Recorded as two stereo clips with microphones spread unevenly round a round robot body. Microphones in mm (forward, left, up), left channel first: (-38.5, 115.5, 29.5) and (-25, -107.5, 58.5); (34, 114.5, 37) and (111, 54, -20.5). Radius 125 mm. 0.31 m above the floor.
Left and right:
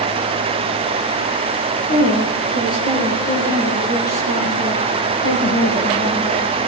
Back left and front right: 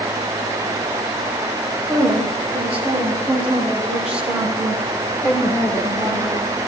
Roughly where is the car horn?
I don't hear a car horn.